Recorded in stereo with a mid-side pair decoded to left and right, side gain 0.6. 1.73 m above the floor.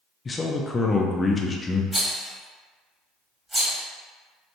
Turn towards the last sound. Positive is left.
turn(degrees=-10)